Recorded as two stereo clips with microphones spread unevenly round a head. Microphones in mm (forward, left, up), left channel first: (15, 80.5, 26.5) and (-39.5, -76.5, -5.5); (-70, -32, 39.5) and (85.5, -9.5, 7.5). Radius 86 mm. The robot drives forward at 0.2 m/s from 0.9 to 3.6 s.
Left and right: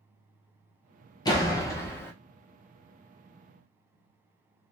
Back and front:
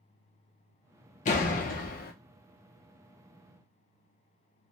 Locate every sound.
1.2 s a door slam: 140° left, 0.6 m; by 2.1 s 150° left, 0.7 m